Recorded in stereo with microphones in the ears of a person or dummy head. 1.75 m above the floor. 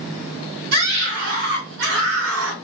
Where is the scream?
65° right (ahead or behind), 1.9 m; by 2.5 s 70° right (ahead or behind), 1.1 m.